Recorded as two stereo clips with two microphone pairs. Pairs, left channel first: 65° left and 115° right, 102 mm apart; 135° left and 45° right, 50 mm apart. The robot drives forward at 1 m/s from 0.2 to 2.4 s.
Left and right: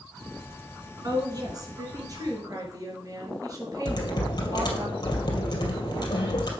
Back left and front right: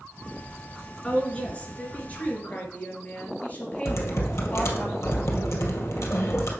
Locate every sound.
1.0 s a woman speaking: 160° right, 2.5 m; by 4.8 s 170° right, 3.5 m
3.9 s typing on a keyboard: 110° left, 2 m